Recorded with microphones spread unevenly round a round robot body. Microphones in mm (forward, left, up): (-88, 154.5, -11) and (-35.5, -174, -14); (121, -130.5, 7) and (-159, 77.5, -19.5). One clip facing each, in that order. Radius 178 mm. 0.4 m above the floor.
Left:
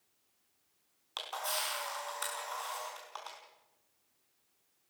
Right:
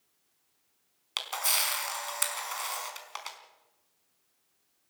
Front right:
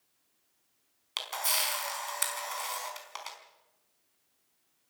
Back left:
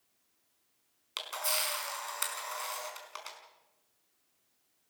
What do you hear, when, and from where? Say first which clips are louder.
1.2 s a camera shutter: right 1 dB, even; 120° right, 4.5 m